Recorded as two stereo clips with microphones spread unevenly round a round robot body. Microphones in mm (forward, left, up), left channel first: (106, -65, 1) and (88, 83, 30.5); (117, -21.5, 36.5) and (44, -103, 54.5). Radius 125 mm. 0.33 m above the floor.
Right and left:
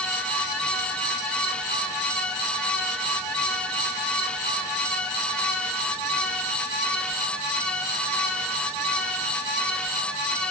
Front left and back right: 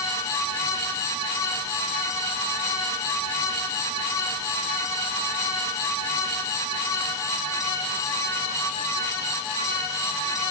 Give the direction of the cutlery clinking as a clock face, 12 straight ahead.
No cutlery clinking in this recording.